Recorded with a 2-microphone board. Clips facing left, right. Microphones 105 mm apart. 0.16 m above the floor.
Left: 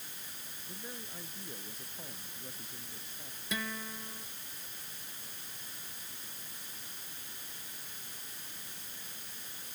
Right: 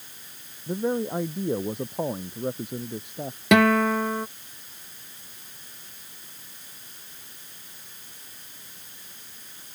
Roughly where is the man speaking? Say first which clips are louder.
Right 23 dB; right.